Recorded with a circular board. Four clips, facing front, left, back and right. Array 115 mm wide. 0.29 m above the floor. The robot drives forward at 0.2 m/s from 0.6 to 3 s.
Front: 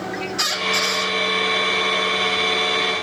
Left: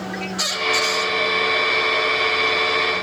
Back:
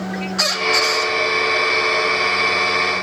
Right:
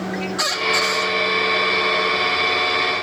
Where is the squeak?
175° right, 2.5 m.